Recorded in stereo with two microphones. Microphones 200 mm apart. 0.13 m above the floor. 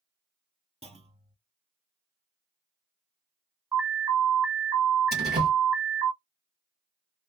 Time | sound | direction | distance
0.8 | a clunk | 30° right (ahead or behind) | 0.6 m
3.7 | an alarm | 10° right (ahead or behind) | 0.8 m
5.1 | a door slam | 55° right (ahead or behind) | 2.0 m